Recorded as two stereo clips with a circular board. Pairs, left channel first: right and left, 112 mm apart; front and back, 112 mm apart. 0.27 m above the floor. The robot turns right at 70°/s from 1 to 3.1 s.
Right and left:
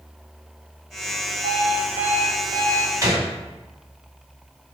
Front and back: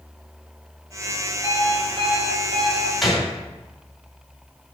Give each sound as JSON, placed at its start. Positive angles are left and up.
{"t": 1.4, "sound": "an alarm clock", "azimuth_deg": 50, "distance_m": 2.5}
{"t": 3.0, "sound": "a gunshot", "azimuth_deg": 85, "distance_m": 1.8}